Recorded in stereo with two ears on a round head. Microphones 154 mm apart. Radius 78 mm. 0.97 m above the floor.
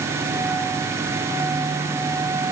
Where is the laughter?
No laughter in this recording.